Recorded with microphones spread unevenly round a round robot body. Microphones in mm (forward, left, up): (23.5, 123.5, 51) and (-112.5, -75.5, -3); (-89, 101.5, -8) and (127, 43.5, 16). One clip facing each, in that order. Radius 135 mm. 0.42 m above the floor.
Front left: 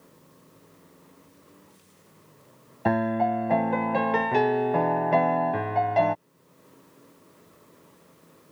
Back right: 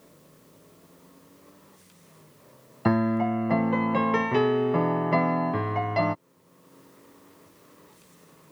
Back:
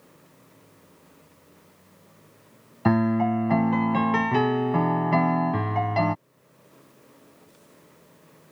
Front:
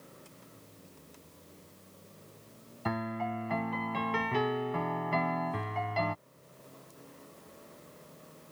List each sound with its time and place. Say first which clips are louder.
2.9 s a piano: back right 2 dB, back 14 dB; 160° left